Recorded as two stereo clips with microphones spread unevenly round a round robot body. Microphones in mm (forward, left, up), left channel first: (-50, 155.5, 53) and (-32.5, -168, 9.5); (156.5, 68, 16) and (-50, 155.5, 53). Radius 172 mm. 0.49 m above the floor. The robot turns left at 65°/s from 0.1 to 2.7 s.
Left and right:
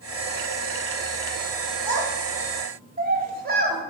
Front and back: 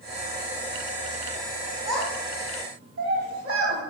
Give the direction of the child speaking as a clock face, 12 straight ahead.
3 o'clock.